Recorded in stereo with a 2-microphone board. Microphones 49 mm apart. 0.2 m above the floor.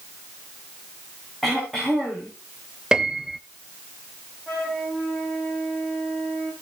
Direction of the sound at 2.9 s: 15° right (ahead or behind).